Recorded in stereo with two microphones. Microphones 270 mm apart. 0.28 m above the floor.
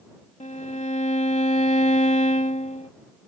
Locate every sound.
0.4 s a violin: 25° left (ahead or behind)